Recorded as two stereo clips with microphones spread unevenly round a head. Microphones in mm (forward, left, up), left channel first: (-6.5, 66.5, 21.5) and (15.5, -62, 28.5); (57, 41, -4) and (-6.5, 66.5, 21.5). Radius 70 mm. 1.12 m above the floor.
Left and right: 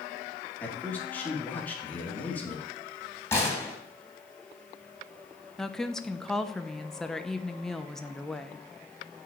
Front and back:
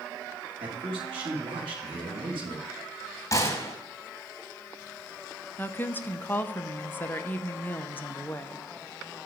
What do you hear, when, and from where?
0.6 s a man speaking: straight behind, 2 m
3.3 s a gunshot: 25° left, 3 m
5.6 s a woman speaking: 15° left, 0.7 m